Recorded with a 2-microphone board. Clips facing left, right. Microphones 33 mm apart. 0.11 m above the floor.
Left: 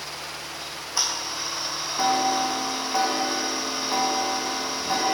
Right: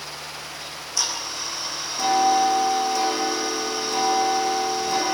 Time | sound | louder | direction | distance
0.6 | ticking | even | 20° left (ahead or behind) | 6 m